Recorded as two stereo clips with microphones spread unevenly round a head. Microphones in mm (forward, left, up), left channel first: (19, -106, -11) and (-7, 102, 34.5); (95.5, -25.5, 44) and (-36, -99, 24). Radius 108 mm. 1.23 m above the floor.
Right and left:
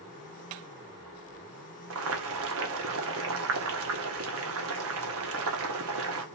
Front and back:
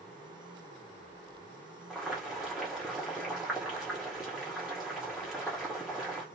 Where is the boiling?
125° left, 1.1 m.